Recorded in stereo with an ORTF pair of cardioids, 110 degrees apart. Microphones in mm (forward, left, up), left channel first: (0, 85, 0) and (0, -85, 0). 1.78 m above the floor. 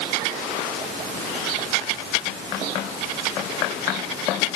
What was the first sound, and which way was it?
Only background noise.